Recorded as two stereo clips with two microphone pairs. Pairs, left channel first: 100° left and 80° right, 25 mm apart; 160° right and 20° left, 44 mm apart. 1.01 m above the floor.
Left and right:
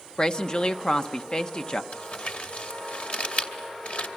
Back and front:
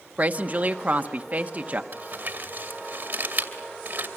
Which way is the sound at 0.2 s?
55° left.